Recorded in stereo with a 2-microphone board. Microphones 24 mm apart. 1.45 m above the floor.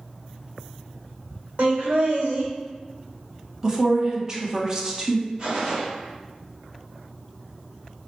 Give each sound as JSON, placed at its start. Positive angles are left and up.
{"t": 1.6, "sound": "laughter", "side_deg": -70, "distance_m": 1.0}
{"t": 3.6, "sound": "a woman speaking", "side_deg": -25, "distance_m": 0.7}
{"t": 5.4, "sound": "a gunshot", "side_deg": -30, "distance_m": 1.0}